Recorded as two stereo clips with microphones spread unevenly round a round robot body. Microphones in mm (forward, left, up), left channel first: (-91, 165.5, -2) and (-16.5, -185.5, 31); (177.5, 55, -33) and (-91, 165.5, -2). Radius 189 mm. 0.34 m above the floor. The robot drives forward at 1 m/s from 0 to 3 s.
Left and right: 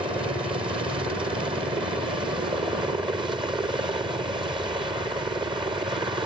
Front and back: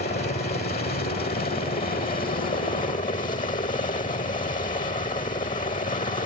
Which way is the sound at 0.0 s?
5° right.